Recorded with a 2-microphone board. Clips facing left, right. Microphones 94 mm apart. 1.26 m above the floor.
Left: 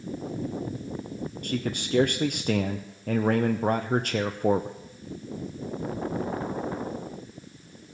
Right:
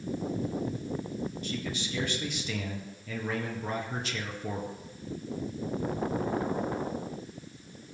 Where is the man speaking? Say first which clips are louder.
Left 5 dB; 55° left (ahead or behind), 0.7 m.